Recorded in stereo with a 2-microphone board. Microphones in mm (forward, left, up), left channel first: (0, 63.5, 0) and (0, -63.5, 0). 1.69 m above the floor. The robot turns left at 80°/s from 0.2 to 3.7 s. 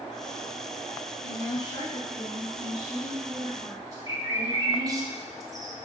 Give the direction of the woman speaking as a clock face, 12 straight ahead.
6 o'clock.